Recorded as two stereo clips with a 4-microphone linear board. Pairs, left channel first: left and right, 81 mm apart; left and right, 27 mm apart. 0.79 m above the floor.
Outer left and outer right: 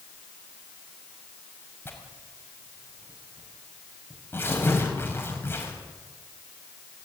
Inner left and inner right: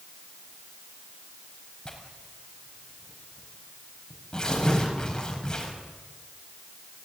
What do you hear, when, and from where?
1.9 s tearing paper: 25° left (ahead or behind), 5.5 m